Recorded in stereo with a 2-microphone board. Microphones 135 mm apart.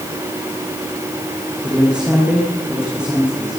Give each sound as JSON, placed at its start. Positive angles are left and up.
{"t": 1.6, "sound": "a man speaking", "side_deg": -5, "distance_m": 7.0}